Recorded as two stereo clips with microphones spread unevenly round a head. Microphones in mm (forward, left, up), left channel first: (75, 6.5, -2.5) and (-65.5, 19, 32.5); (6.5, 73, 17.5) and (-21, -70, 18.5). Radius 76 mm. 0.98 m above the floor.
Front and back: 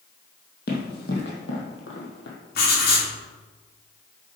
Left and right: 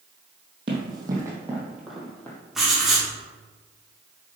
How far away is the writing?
About 2.5 m.